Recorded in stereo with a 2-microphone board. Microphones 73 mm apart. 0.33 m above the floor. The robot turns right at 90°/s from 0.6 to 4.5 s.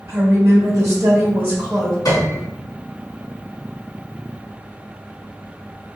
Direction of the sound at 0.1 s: 105° right.